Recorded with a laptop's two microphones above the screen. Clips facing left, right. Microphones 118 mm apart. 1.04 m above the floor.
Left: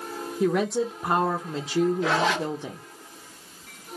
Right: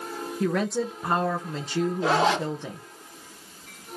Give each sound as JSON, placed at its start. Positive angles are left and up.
{"t": 0.4, "sound": "a woman speaking", "side_deg": 10, "distance_m": 0.9}
{"t": 2.0, "sound": "a zipper", "side_deg": -30, "distance_m": 1.3}